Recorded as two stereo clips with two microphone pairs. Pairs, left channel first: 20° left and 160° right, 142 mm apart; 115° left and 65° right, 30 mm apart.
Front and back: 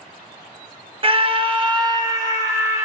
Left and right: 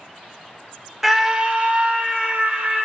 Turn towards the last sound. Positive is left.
turn(degrees=-90)